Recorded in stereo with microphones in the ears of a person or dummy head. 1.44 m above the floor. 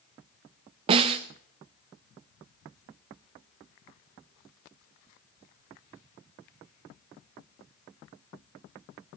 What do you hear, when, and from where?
0.9 s a snare drum: 30° right (ahead or behind), 0.9 m